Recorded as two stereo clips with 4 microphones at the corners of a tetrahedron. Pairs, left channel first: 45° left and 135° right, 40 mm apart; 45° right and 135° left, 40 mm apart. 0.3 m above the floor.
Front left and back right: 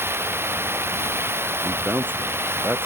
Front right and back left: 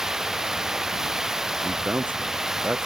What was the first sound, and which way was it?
Running water, 145° right.